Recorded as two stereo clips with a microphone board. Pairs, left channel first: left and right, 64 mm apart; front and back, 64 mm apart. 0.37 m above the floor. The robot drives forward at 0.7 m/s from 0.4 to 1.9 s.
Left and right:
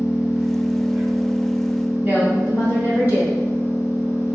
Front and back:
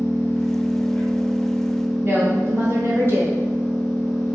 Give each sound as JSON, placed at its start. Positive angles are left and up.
{"t": 0.0, "sound": "an engine running", "azimuth_deg": -35, "distance_m": 1.7}
{"t": 2.0, "sound": "a woman speaking", "azimuth_deg": -145, "distance_m": 1.6}